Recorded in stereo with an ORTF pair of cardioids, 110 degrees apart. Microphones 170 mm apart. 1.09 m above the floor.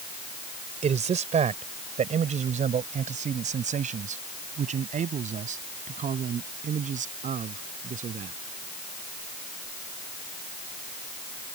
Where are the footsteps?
No footsteps in this recording.